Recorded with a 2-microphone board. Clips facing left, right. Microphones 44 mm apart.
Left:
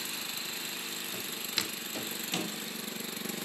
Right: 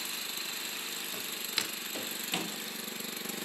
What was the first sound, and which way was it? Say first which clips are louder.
Footsteps: even; centre (ahead or behind).